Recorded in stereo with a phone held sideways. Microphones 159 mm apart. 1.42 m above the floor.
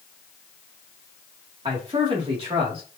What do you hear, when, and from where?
1.6 s a man speaking: 35° right (ahead or behind), 2 m